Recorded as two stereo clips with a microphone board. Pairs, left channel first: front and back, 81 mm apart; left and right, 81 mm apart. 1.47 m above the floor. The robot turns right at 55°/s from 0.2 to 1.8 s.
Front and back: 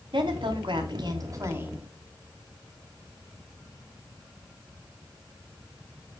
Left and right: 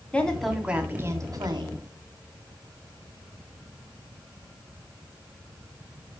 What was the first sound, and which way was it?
A woman speaking, 165° left.